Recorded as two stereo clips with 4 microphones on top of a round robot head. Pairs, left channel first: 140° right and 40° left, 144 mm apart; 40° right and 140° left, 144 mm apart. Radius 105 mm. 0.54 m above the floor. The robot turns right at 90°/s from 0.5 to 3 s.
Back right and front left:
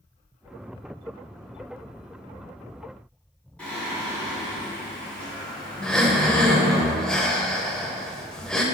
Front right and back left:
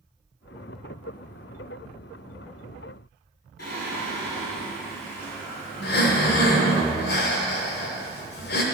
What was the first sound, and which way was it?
Singing, 60° right.